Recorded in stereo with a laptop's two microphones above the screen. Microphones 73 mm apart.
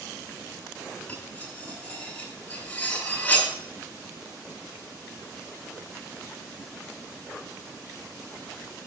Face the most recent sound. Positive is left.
turn(degrees=15)  # may be behind; listen again after turning